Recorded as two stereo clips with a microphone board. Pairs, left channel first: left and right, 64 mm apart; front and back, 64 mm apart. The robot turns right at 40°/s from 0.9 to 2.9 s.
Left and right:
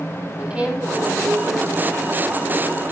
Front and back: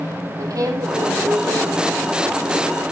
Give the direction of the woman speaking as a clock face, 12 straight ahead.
5 o'clock.